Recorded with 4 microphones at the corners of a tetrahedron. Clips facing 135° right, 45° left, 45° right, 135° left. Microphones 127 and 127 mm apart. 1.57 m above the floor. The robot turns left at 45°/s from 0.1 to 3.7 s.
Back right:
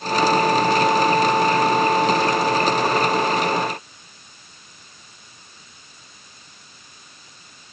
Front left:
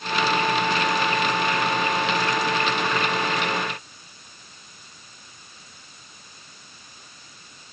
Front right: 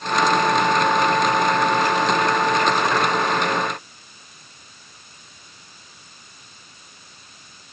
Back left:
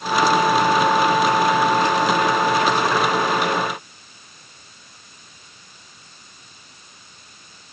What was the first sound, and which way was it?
Only background noise.